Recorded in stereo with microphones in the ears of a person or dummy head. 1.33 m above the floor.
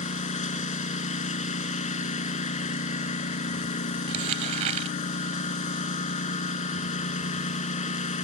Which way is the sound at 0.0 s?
40° left (ahead or behind).